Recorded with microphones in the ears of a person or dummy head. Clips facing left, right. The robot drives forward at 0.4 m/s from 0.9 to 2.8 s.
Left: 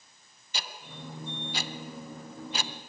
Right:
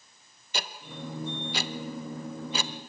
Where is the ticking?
45° right (ahead or behind), 0.9 m; by 2.9 s 60° right (ahead or behind), 0.7 m.